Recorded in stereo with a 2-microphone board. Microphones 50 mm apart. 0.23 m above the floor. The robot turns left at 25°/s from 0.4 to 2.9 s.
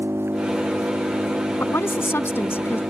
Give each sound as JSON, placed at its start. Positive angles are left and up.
{"t": 0.0, "sound": "an engine running", "azimuth_deg": -55}
{"t": 1.6, "sound": "a woman speaking", "azimuth_deg": 105}